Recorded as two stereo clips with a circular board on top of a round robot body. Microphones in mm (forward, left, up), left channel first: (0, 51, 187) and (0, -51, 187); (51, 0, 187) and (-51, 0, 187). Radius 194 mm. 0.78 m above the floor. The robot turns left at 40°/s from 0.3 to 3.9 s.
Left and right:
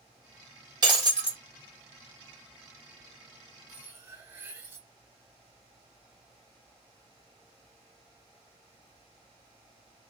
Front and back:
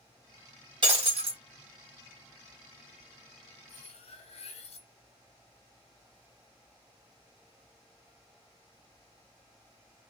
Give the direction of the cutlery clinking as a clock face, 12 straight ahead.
12 o'clock.